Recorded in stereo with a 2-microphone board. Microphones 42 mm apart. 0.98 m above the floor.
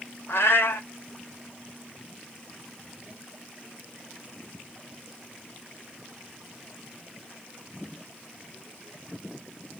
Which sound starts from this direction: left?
A cat meowing, at 0.3 s.